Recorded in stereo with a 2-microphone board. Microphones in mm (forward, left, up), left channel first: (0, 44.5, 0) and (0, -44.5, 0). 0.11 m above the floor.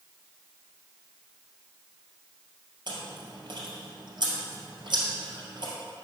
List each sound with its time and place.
2.9 s chewing: 55° right (ahead or behind), 2.5 m